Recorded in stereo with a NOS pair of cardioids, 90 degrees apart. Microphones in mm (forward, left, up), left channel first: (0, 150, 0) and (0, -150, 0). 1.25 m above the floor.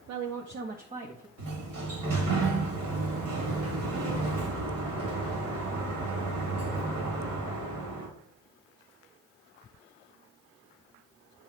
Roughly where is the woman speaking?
Right.